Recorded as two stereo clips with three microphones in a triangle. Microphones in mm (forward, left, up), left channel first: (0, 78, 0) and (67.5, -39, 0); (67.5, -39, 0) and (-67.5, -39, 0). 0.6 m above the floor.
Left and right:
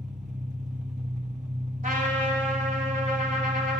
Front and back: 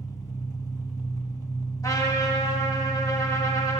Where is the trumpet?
65° right, 1.5 m.